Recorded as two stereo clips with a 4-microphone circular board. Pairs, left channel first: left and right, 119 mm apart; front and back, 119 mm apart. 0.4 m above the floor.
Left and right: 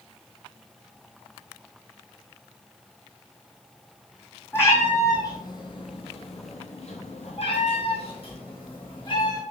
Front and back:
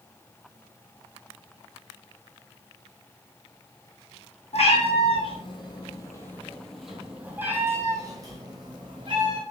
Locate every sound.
4.5 s a cat meowing: 20° left, 1.2 m; by 9.4 s 135° left, 1.7 m